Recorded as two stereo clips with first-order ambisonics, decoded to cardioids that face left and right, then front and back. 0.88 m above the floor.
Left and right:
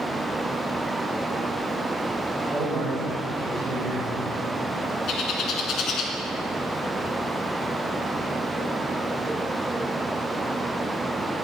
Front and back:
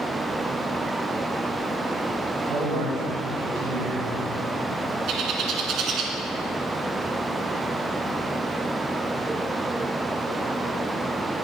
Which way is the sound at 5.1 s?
135° left.